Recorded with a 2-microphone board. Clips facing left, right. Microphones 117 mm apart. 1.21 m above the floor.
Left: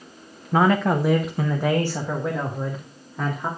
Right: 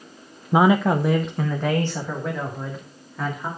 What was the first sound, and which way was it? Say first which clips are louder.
A man speaking: right 2 dB; 15° right (ahead or behind).